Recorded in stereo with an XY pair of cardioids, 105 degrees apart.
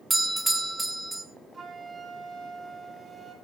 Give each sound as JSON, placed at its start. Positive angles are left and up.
{"t": 0.1, "sound": "a doorbell", "azimuth_deg": -10, "distance_m": 1.8}
{"t": 1.5, "sound": "a flute", "azimuth_deg": -30, "distance_m": 4.5}